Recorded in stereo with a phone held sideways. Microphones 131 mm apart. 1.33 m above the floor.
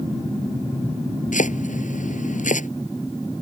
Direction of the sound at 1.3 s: 75° left (ahead or behind).